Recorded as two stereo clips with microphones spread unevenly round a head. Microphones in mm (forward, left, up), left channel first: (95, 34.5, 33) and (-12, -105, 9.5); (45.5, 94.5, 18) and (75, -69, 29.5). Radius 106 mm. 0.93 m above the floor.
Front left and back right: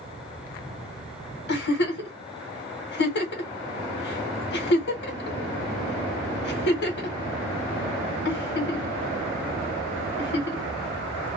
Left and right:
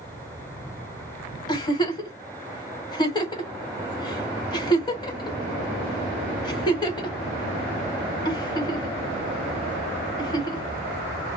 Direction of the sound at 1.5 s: 40° left.